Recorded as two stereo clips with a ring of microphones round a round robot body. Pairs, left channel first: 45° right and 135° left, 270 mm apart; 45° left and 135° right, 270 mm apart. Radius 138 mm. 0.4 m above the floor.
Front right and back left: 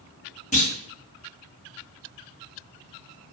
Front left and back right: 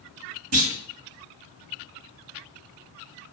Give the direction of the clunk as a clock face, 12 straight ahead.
4 o'clock.